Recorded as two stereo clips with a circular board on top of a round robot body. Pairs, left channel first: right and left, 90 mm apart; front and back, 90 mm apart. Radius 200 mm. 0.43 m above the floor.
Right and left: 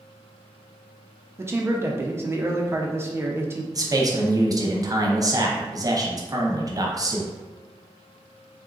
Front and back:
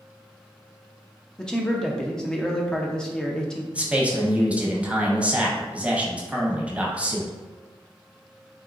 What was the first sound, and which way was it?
A man speaking, 75° left.